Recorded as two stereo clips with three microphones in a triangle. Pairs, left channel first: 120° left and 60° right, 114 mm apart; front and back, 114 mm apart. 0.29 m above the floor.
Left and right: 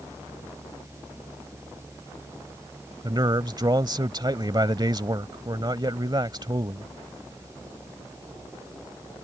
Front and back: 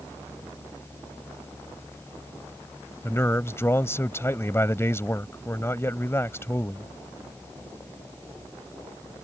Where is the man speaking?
50° right.